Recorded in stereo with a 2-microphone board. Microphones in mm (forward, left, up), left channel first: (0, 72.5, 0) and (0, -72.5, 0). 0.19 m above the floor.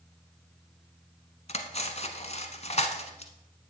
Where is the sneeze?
I don't hear a sneeze.